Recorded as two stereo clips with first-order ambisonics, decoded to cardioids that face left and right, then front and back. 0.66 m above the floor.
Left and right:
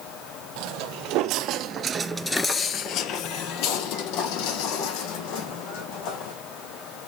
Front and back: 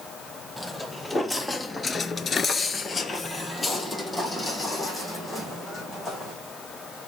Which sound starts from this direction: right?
Footsteps, at 0.6 s.